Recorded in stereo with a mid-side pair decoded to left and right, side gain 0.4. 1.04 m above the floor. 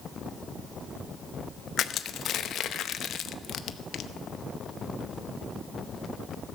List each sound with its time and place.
1.8 s crushing: 70° left, 0.7 m